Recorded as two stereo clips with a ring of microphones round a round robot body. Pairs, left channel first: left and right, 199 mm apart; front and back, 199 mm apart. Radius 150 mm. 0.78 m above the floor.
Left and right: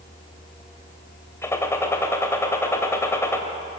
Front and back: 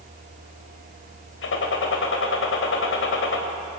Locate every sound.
1.4 s a gunshot: 15° left, 2.5 m